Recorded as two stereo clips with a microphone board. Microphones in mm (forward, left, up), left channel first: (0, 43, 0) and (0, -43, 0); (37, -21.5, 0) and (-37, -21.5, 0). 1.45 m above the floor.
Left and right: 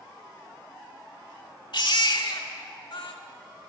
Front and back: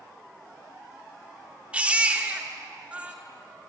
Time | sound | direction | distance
1.7 | a baby crying | 110° left | 2 m